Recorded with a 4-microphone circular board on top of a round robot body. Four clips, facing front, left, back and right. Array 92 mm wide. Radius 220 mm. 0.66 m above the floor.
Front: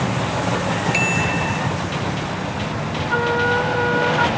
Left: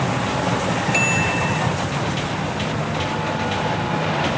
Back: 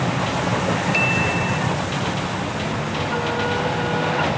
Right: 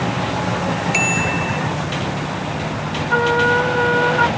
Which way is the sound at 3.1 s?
65° right.